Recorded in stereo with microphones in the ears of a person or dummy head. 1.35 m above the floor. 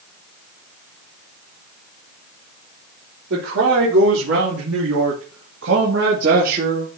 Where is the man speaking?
75° right (ahead or behind), 3.5 m; by 6.9 s 40° right (ahead or behind), 2 m.